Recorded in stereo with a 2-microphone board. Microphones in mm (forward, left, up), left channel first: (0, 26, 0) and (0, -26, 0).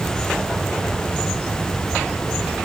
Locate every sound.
Only background noise.